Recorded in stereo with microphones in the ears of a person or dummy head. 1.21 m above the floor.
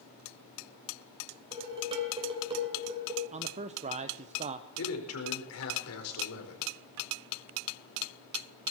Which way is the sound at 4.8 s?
85° left.